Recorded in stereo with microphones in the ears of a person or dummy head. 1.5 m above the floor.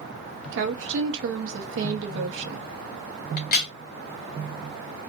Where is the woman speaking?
70° right (ahead or behind), 0.9 m.